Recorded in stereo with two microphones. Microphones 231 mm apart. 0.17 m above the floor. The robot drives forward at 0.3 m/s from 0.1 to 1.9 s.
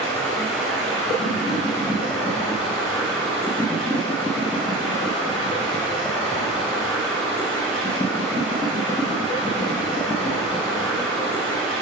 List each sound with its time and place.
0.0 s running water: 5° left (ahead or behind), 4 m